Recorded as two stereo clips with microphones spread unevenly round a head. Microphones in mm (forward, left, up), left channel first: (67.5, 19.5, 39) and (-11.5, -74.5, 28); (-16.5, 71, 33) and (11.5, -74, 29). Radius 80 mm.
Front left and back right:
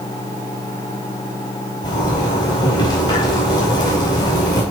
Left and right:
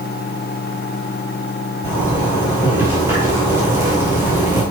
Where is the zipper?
5° right, 4.5 m.